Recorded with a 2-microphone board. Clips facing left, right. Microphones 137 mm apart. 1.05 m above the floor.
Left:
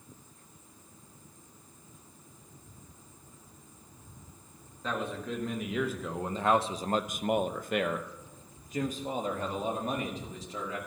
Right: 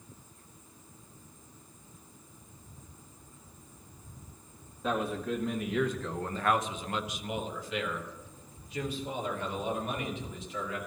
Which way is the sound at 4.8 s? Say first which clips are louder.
Right 3 dB; 10° right (ahead or behind).